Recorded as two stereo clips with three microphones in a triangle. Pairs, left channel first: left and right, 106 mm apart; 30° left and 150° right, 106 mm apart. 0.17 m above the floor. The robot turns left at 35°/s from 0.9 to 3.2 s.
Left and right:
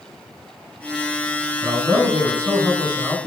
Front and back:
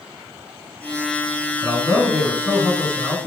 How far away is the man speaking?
About 1.6 m.